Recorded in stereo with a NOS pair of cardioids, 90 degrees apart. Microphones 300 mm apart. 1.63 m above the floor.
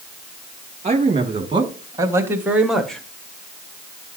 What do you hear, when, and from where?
0.8 s a man speaking: 20° right, 3 m; by 3.0 s 5° left, 1.7 m